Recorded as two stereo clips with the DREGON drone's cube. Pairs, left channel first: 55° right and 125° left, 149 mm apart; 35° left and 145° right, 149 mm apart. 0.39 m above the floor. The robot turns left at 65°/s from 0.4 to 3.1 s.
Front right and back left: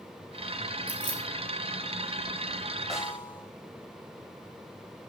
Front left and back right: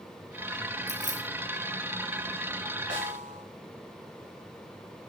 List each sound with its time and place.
0.9 s keys jangling: 105° right, 2.5 m; by 1.2 s 125° right, 2.5 m
2.9 s a snare drum: 145° right, 2.5 m; by 3.5 s 160° right, 2.5 m